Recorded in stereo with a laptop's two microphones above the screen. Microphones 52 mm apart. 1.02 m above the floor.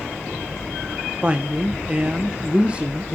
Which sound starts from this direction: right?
A woman speaking, at 1.2 s.